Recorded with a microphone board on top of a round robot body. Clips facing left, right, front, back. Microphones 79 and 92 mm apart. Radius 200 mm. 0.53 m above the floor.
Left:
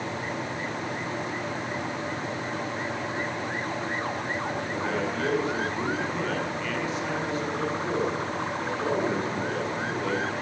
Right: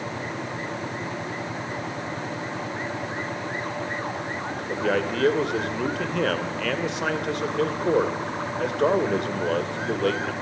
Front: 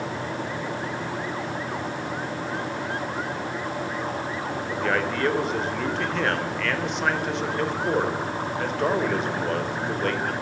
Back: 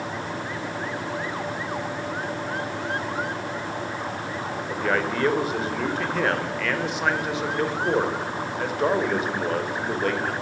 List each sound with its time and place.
4.7 s a man speaking: 95° right, 3 m